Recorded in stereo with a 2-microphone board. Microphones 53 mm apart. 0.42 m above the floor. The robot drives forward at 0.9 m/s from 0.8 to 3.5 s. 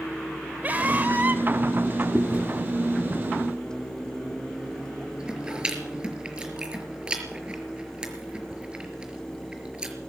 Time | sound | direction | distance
0.6 | a scream | 35° right (ahead or behind) | 2 m
2.1 | chewing | 20° right (ahead or behind) | 4 m